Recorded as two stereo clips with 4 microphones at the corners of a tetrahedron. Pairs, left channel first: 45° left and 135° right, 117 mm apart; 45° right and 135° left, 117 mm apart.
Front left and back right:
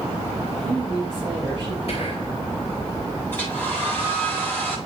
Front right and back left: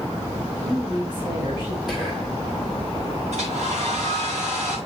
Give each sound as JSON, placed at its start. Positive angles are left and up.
{"t": 0.4, "sound": "a woman speaking", "azimuth_deg": -175, "distance_m": 5.0}
{"t": 1.9, "sound": "whispering", "azimuth_deg": 50, "distance_m": 2.5}
{"t": 3.3, "sound": "a hair dryer", "azimuth_deg": 120, "distance_m": 8.0}